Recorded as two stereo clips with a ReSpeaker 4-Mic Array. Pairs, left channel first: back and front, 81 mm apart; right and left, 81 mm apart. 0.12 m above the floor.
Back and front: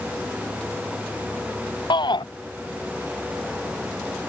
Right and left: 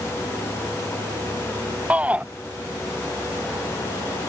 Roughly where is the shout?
Behind.